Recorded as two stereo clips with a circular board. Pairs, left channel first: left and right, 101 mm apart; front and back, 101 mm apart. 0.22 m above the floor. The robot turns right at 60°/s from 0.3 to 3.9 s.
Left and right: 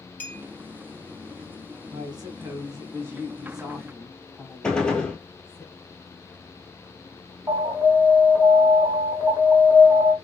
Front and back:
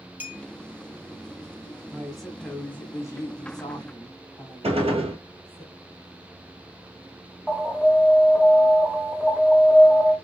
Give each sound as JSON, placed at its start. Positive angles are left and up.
{"t": 0.2, "sound": "a clink", "azimuth_deg": 135, "distance_m": 0.6}
{"t": 1.9, "sound": "a woman speaking", "azimuth_deg": -110, "distance_m": 1.3}
{"t": 4.6, "sound": "a gunshot", "azimuth_deg": 170, "distance_m": 0.8}
{"t": 7.5, "sound": "an alarm", "azimuth_deg": -85, "distance_m": 2.0}